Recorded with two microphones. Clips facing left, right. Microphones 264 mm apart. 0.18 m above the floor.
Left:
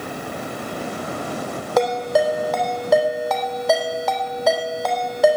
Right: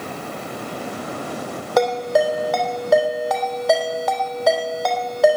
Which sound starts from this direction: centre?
A ringtone, at 1.8 s.